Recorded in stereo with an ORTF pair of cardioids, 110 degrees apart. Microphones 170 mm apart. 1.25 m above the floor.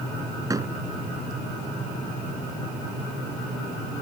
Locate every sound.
0.5 s a door slam: 20° right